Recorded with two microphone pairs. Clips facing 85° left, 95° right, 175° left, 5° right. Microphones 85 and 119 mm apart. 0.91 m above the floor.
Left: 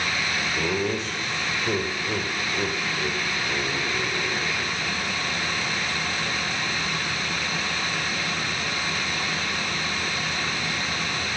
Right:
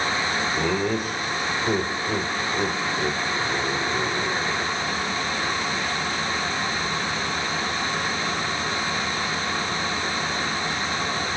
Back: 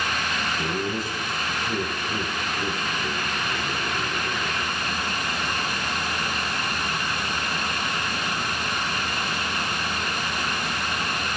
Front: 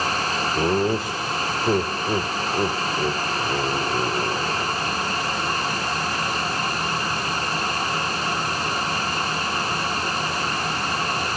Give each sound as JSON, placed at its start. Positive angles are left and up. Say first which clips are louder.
{"t": 0.6, "sound": "laughter", "louder": "right 1 dB, front 10 dB", "azimuth_deg": -15, "distance_m": 3.0}